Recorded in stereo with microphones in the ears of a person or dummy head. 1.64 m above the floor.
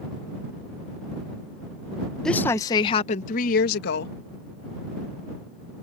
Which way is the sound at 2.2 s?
Centre (ahead or behind).